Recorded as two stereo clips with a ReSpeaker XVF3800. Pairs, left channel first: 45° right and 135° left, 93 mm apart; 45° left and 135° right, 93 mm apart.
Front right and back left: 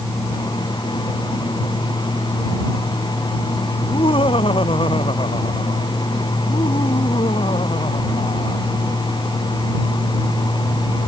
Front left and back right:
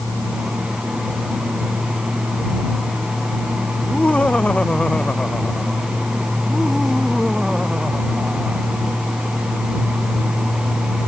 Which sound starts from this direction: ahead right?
Laughter, at 3.8 s.